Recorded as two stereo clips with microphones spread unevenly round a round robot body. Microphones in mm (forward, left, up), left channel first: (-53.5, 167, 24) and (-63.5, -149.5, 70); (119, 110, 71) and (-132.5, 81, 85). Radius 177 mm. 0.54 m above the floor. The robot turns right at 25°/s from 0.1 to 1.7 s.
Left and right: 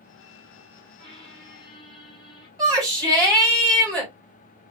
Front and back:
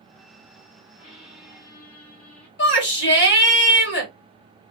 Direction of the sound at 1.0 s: 25° right.